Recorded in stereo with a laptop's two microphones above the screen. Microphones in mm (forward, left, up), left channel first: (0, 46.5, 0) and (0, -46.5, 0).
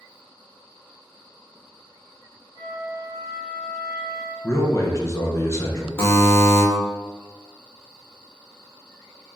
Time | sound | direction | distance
2.5 | a flute | 40° left (ahead or behind) | 1.3 m
4.4 | a man speaking | 35° left (ahead or behind) | 0.5 m
6.0 | a buzzer | 25° left (ahead or behind) | 1.0 m